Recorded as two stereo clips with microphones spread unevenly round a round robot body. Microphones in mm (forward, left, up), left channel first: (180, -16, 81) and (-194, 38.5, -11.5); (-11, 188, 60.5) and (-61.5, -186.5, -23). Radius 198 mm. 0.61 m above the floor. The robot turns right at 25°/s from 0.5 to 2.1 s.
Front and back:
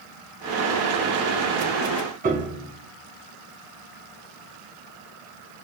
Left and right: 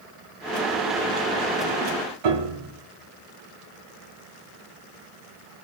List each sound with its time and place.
2.2 s a piano: 115° right, 1.8 m